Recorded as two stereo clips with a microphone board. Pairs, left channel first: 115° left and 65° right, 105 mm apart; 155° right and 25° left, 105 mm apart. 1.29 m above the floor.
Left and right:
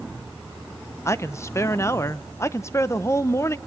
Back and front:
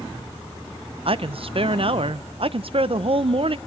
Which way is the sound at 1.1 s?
50° left.